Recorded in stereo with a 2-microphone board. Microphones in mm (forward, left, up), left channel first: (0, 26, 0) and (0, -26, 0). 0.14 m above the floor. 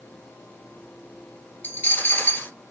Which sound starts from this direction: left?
A dropped coin, at 1.6 s.